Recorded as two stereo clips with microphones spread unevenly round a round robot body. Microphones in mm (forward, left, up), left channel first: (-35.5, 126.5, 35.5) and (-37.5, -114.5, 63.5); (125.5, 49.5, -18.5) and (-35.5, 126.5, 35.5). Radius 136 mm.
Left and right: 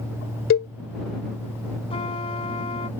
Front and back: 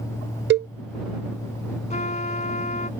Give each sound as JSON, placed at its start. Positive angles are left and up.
{"t": 0.5, "sound": "a cowbell", "azimuth_deg": 120}
{"t": 1.9, "sound": "a trumpet", "azimuth_deg": 20}